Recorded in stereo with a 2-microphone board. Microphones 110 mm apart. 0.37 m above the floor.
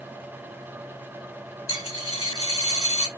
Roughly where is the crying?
I don't hear crying.